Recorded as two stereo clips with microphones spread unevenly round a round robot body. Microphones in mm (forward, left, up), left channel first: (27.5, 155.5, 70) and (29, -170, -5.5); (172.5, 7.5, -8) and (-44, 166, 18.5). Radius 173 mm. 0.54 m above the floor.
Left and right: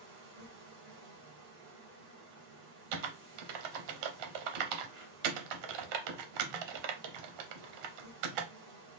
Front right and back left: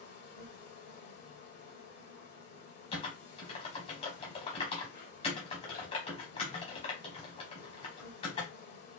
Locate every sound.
0.0 s an insect: 95° right, 2.5 m
2.9 s typing on a keyboard: 110° right, 0.7 m